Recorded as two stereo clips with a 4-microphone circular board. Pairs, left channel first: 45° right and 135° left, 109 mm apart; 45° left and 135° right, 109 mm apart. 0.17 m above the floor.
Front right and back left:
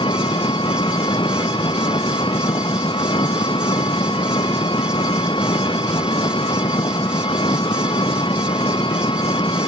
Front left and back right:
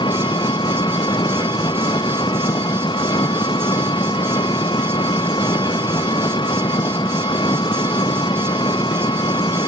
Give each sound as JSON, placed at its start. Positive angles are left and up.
{"t": 0.0, "sound": "an engine running", "azimuth_deg": 0}